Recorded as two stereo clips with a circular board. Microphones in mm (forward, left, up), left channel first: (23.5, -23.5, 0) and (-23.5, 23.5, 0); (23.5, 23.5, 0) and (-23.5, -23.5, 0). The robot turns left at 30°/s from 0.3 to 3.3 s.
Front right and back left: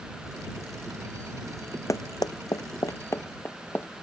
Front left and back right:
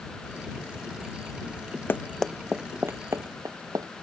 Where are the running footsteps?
10° right; by 3.9 s 110° right.